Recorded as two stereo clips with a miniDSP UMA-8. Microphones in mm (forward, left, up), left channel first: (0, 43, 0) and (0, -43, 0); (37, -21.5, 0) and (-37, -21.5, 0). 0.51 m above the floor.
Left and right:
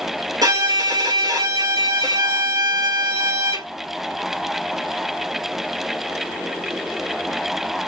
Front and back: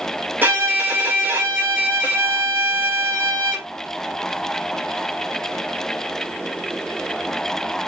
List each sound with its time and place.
0.4 s a violin: 120° right, 1.9 m